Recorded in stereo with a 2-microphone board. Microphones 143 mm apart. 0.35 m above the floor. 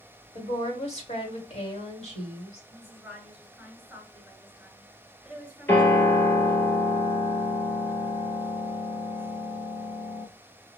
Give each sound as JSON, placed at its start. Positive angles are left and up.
{"t": 0.3, "sound": "a woman speaking", "side_deg": 50, "distance_m": 1.9}
{"t": 2.7, "sound": "a woman speaking", "side_deg": -5, "distance_m": 2.0}
{"t": 5.7, "sound": "a piano", "side_deg": 15, "distance_m": 2.5}